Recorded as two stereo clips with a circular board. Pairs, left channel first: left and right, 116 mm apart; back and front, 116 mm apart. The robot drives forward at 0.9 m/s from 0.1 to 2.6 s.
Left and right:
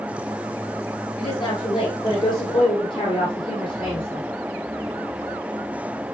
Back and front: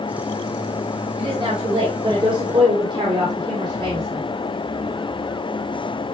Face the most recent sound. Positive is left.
turn(degrees=45)